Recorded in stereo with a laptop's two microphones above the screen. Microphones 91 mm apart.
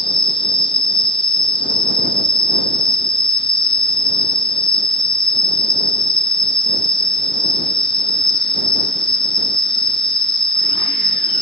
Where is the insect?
65° left (ahead or behind).